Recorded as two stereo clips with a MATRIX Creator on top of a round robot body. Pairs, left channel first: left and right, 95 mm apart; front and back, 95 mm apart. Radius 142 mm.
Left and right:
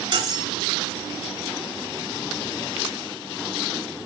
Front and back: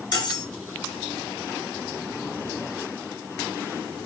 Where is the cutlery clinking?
45° right, 3 m.